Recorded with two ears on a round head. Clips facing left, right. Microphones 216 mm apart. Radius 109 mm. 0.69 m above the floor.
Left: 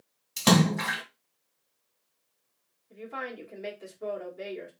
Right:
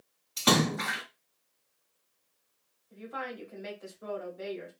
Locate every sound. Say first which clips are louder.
0.4 s a splash: left 4 dB; 60° left (ahead or behind), 1.6 m
2.9 s a woman speaking: left 1 dB; 75° left (ahead or behind), 1.9 m